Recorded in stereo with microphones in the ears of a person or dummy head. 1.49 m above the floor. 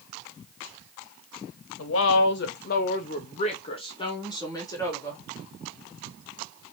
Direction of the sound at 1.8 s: 75° left (ahead or behind).